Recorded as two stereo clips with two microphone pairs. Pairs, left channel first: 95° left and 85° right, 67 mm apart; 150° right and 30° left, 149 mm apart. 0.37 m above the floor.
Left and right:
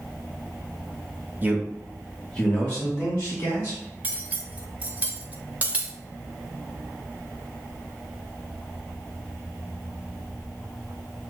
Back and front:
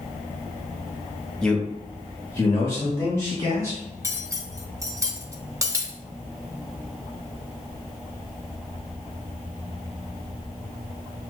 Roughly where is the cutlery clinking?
Ahead right.